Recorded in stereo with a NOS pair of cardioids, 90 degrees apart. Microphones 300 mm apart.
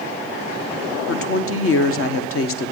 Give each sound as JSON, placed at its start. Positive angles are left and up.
{"t": 1.1, "sound": "a woman speaking", "azimuth_deg": 45, "distance_m": 1.3}